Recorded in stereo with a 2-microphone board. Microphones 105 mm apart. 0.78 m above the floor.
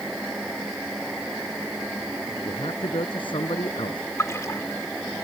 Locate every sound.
2.5 s a man speaking: 55° left (ahead or behind)
4.2 s a splash: 30° left (ahead or behind)